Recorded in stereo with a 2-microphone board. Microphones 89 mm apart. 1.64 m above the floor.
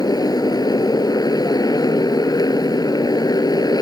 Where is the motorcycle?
45° left (ahead or behind).